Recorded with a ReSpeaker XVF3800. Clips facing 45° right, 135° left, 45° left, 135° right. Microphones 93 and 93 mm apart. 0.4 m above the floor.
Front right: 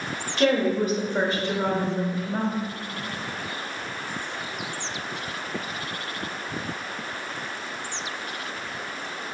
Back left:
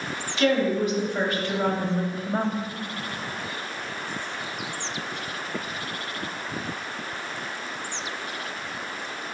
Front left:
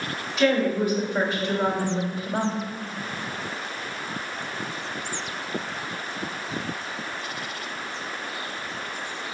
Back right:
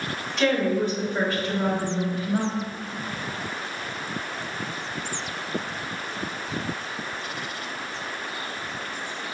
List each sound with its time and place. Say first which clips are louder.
0.4 s a woman speaking: front right 1 dB, front left 1 dB; 40° right, 1.8 m; by 2.5 s 60° left, 1.6 m